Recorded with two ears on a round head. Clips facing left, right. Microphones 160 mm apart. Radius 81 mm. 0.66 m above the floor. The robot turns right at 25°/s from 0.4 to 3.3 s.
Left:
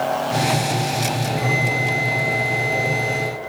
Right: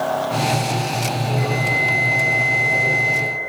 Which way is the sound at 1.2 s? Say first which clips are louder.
Even; 155° left.